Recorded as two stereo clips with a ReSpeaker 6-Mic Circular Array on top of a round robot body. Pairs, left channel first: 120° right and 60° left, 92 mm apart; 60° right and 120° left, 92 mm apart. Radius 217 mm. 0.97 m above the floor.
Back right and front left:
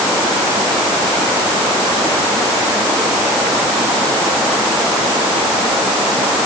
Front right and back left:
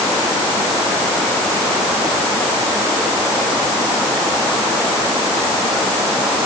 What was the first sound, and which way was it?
Only background noise.